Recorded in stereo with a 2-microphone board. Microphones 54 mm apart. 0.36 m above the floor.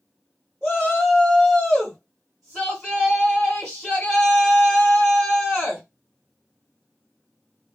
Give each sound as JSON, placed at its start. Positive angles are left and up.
{"t": 0.6, "sound": "a shout", "side_deg": 5, "distance_m": 1.6}